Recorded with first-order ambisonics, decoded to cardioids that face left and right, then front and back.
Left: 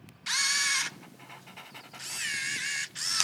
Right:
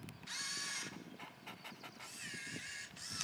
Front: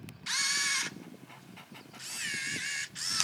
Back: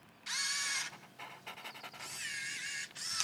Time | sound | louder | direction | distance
0.3 | a camera shutter | left 16 dB, front 6 dB | 70° left | 0.5 m